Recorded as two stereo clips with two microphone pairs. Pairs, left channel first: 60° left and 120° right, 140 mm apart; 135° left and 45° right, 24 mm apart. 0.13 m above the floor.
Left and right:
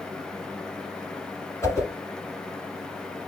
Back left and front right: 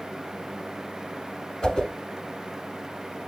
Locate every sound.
1.6 s a whoosh: 105° left, 1.4 m